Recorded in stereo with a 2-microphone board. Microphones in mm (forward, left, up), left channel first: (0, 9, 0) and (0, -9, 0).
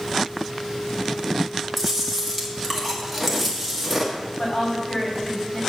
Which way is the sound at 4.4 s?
65° left (ahead or behind).